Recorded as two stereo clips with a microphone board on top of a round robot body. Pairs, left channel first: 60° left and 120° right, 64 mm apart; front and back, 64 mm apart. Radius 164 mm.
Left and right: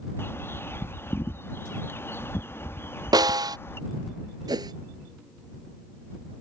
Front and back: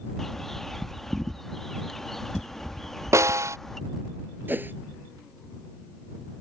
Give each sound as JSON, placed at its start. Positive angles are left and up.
{"t": 0.2, "sound": "a bird", "azimuth_deg": 80}
{"t": 3.1, "sound": "a snare drum", "azimuth_deg": -135}
{"t": 4.5, "sound": "a whoosh", "azimuth_deg": -120}